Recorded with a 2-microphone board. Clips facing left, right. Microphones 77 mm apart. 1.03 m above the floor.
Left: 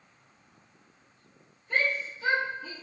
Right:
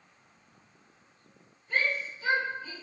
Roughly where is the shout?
Left.